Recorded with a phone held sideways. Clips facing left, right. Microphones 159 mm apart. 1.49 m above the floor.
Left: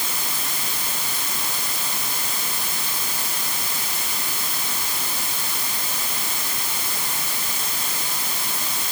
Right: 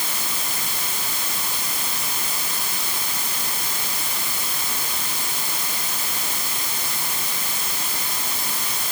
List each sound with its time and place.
Only background noise.